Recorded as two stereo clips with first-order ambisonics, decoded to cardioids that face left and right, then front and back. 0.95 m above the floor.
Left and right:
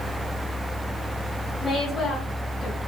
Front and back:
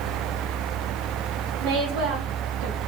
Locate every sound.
1.6 s a woman speaking: 160° left, 2.5 m